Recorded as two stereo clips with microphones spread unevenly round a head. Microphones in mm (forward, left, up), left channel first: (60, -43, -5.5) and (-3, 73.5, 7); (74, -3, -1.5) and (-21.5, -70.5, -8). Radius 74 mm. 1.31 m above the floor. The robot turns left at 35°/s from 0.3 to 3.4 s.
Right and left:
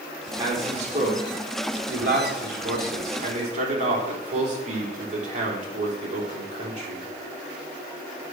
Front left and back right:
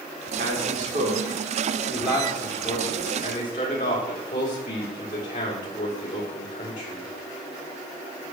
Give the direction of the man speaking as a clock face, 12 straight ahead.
6 o'clock.